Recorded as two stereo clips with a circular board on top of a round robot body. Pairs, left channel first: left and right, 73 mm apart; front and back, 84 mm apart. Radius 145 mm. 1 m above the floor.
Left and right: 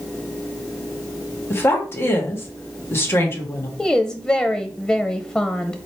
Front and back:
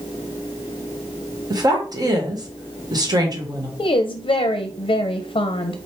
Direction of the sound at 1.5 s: 145° left.